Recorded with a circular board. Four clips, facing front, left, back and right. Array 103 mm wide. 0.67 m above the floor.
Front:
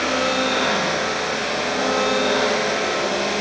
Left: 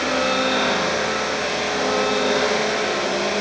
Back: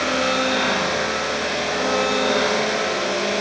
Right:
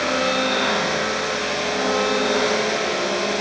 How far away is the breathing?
I don't hear breathing.